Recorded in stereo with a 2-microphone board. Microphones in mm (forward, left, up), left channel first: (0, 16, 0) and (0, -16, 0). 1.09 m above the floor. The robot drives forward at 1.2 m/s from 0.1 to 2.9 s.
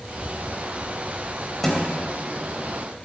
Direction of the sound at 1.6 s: 10° left (ahead or behind).